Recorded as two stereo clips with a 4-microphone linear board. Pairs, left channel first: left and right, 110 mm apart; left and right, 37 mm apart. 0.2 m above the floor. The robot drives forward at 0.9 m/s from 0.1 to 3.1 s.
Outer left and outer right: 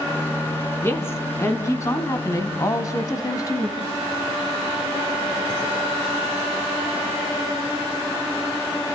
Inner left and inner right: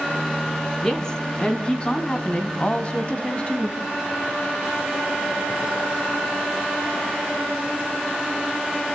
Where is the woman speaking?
20° left (ahead or behind), 2.5 m; by 3.8 s 30° left (ahead or behind), 1.7 m.